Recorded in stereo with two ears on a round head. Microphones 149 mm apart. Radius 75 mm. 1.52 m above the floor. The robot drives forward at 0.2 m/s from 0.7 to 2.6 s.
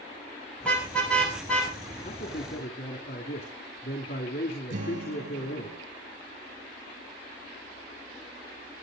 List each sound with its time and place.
0.6 s a car horn: 10° left (ahead or behind), 6 m; by 1.7 s 5° left (ahead or behind), 6 m
2.0 s a man speaking: 55° left (ahead or behind), 3 m; by 5.7 s 60° left (ahead or behind), 3 m
4.7 s a guitar: 50° right (ahead or behind), 4.5 m